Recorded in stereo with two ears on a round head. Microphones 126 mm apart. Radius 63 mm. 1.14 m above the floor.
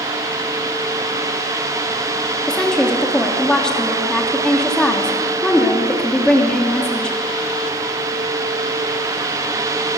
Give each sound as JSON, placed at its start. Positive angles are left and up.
{"t": 2.5, "sound": "a woman speaking", "side_deg": 5, "distance_m": 2.5}